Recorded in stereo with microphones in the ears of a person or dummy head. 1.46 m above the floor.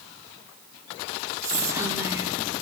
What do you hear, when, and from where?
1.4 s whispering: 10° right (ahead or behind), 1.1 m